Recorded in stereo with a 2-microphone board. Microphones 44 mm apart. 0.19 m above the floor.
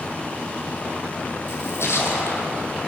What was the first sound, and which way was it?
A splash, 75° left (ahead or behind).